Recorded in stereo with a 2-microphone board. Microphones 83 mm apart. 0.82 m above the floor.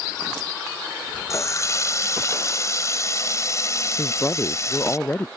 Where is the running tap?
40° left (ahead or behind).